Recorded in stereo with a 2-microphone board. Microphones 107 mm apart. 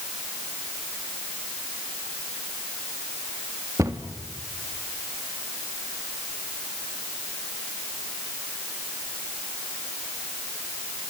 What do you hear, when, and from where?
3.8 s a cupboard door: 30° right (ahead or behind), 1.7 m